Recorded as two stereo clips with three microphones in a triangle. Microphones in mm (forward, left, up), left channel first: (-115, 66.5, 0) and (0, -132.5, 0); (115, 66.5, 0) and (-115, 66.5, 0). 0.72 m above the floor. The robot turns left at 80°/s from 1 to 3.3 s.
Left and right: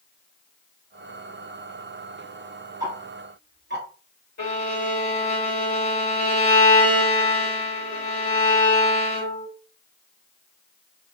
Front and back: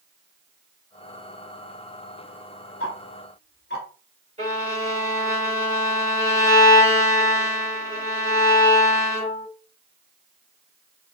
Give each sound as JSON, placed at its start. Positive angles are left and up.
{"t": 2.8, "sound": "ticking", "azimuth_deg": 10, "distance_m": 0.7}
{"t": 4.4, "sound": "a violin", "azimuth_deg": 135, "distance_m": 1.5}